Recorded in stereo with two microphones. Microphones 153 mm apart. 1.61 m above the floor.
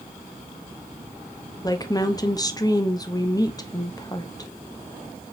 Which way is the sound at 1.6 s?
25° left (ahead or behind).